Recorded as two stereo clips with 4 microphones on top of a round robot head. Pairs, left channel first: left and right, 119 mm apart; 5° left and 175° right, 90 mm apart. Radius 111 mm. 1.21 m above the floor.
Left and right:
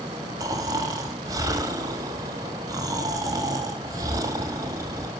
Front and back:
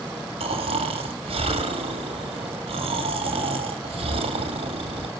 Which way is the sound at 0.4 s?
155° right.